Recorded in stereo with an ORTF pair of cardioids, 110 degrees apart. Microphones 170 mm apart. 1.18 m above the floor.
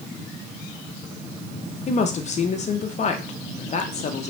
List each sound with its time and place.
1.9 s a woman speaking: 40° left, 0.7 m